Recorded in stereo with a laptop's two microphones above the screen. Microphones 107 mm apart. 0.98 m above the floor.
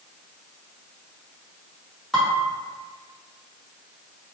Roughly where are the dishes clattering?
Centre.